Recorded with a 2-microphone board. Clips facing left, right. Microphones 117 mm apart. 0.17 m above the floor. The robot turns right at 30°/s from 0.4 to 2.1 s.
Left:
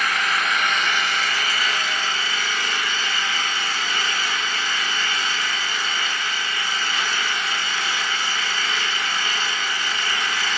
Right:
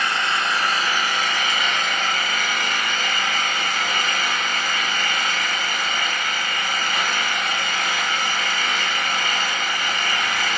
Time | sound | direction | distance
0.0 | an engine running | 145° right | 1.6 m